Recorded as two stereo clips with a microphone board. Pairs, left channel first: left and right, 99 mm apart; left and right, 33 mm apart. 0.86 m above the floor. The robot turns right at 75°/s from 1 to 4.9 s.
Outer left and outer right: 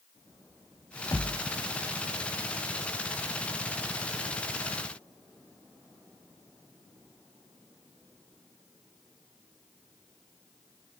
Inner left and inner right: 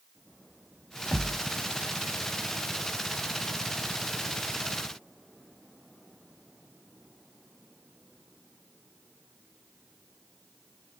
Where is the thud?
20° left (ahead or behind), 1.7 m; by 1.5 s 45° left (ahead or behind), 1.7 m.